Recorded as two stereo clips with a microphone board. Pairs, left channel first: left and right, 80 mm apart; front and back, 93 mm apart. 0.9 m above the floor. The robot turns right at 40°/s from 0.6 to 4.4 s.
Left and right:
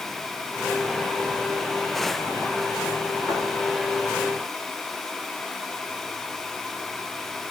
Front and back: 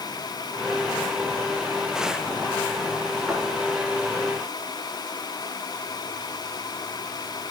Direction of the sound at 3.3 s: 95° left.